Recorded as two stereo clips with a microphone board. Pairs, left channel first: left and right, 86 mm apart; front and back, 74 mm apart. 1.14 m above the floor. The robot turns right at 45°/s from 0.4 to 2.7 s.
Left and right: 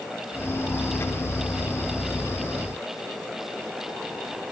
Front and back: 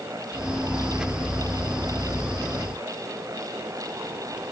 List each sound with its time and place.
Only background noise.